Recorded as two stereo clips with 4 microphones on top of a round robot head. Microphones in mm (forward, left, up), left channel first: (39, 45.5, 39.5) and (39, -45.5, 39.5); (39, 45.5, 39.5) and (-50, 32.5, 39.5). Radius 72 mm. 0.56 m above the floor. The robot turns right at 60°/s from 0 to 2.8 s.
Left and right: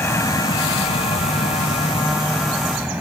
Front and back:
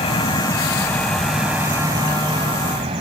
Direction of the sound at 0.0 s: 25° left.